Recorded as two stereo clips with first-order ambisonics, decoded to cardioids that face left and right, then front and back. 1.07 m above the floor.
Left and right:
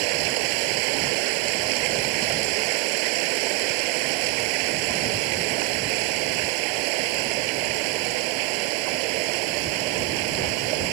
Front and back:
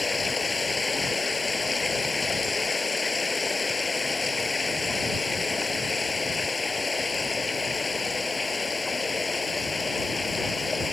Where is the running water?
80° right.